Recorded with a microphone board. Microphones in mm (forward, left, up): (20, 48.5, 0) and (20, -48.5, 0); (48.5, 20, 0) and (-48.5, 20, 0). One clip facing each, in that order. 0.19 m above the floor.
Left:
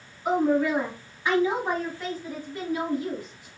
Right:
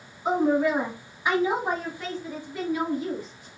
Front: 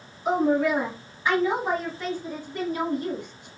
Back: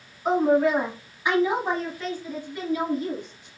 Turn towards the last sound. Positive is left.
turn(degrees=20)